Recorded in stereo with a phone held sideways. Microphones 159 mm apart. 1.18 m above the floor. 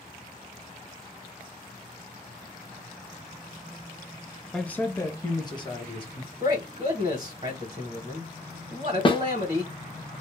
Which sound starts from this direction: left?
A snare drum, at 9.1 s.